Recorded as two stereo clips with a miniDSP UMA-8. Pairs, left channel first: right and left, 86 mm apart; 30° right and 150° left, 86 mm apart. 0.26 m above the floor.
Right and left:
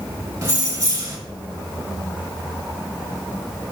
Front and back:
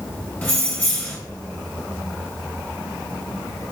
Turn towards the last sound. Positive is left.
turn(degrees=35)